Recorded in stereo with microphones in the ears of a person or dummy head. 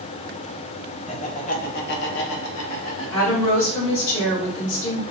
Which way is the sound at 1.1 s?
30° left (ahead or behind).